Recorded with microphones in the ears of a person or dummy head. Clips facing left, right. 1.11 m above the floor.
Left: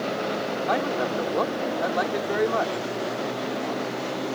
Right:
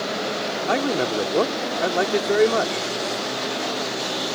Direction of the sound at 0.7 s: 45° right (ahead or behind).